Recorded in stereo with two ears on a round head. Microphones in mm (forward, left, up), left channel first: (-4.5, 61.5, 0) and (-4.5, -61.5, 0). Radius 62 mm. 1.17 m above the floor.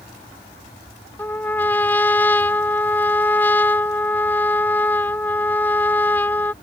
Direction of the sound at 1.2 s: 10° left (ahead or behind).